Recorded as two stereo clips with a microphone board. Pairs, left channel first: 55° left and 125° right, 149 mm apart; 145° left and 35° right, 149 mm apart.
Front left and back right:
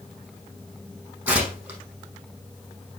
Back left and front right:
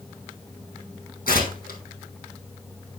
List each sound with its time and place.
1.3 s tearing paper: 155° left, 5.5 m